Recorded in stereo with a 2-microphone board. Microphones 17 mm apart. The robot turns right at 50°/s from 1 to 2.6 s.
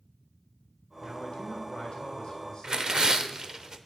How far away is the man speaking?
About 3 m.